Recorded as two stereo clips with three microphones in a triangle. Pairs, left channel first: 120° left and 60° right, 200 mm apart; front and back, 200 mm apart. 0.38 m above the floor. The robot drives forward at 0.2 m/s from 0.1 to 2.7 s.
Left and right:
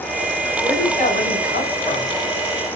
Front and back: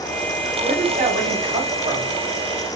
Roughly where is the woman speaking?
Behind left.